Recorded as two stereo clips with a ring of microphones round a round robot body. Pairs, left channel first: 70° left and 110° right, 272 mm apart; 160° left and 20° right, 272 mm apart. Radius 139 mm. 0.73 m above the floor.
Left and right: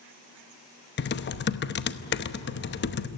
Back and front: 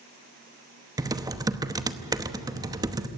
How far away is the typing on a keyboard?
About 0.9 m.